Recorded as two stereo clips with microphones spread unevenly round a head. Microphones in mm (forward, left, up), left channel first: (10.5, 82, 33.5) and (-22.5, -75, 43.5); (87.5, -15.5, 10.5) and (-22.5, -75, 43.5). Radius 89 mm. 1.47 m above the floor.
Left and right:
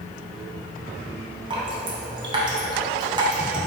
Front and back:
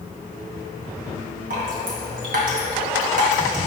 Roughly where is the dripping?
Behind.